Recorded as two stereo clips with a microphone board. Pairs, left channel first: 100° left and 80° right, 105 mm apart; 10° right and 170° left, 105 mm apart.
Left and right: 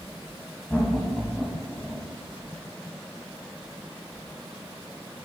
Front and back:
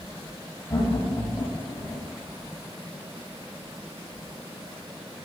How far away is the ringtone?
I don't hear a ringtone.